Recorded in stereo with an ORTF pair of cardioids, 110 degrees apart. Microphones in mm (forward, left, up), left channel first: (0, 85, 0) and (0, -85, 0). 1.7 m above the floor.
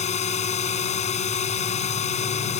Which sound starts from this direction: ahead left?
A drone, at 0.0 s.